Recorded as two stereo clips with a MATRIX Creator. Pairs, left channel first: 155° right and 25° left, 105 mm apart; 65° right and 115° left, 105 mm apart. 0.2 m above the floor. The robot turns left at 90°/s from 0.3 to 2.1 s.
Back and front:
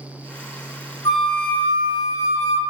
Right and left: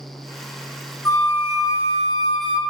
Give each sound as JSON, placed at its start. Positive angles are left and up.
{"t": 1.1, "sound": "a flute", "azimuth_deg": -115, "distance_m": 0.5}